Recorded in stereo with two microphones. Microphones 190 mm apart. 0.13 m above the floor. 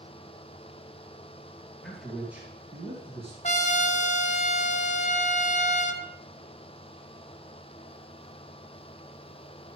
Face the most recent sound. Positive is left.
turn(degrees=40)  # may be behind; listen again after turning